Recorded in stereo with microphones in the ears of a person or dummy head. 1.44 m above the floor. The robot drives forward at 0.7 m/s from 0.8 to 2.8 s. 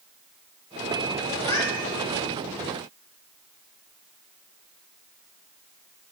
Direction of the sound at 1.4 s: 20° left (ahead or behind).